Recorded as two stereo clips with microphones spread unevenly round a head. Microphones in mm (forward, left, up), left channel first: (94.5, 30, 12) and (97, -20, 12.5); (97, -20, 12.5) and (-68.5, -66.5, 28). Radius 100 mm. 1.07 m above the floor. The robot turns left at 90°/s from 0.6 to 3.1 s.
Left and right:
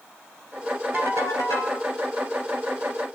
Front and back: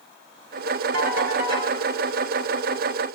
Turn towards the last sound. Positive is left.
turn(degrees=-10)